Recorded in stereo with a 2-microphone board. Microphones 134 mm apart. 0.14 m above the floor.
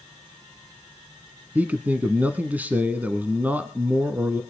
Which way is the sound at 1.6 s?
10° right (ahead or behind).